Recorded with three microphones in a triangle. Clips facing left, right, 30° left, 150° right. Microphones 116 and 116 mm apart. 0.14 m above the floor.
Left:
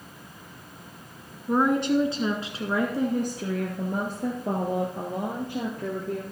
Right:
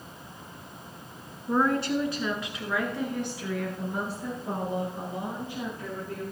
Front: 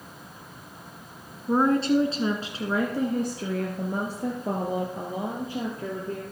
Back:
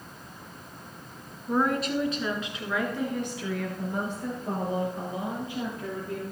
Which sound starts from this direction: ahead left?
A woman speaking, at 1.5 s.